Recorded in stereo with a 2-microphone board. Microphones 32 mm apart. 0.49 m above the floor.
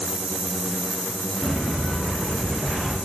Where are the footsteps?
40° right (ahead or behind), 4 m; by 2.9 s 20° right (ahead or behind), 4.5 m.